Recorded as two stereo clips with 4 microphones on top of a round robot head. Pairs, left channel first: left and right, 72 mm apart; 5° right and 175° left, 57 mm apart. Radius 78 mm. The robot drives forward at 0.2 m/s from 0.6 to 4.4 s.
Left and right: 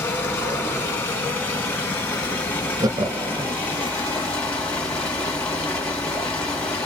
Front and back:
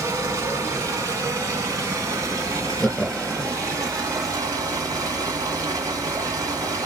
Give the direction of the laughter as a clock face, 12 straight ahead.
3 o'clock.